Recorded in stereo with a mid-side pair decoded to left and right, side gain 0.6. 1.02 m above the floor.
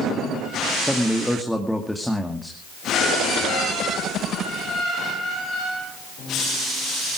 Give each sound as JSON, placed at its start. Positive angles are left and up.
{"t": 0.8, "sound": "a man speaking", "azimuth_deg": 0, "distance_m": 2.0}